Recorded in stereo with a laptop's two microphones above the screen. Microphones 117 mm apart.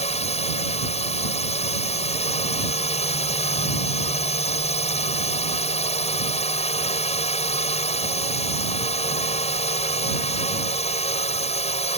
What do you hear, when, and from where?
0.0 s a drone: 60° left (ahead or behind)